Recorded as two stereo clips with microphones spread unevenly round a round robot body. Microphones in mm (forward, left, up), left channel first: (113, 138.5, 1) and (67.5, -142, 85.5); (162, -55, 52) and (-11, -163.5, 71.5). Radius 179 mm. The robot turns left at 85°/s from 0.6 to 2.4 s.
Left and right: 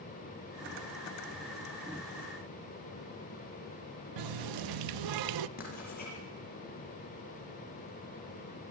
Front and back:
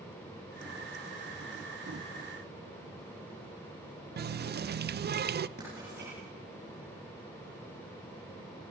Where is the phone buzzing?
I don't hear a phone buzzing.